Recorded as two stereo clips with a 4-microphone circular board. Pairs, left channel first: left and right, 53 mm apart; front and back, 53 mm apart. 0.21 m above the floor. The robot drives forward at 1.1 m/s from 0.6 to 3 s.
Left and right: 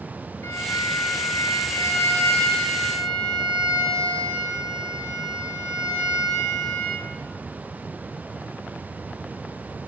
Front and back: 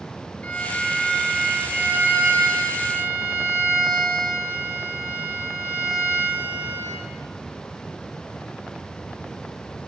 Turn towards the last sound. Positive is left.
turn(degrees=150)